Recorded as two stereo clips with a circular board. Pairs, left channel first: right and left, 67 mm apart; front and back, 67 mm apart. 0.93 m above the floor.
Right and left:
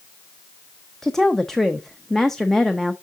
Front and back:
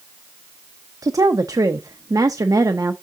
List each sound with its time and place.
1.0 s a woman speaking: 175° right, 0.6 m